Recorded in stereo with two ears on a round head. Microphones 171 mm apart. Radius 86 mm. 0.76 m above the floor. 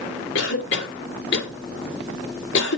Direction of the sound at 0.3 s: 70° left (ahead or behind).